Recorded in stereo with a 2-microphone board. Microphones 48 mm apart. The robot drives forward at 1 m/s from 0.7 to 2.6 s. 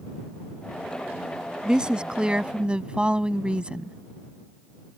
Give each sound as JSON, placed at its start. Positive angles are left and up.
{"t": 1.6, "sound": "a woman speaking", "side_deg": -15}